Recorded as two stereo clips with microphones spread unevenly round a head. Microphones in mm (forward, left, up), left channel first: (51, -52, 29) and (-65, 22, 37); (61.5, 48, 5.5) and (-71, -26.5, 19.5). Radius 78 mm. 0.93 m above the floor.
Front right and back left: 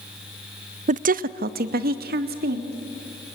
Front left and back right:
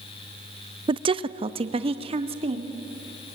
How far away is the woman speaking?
About 0.6 m.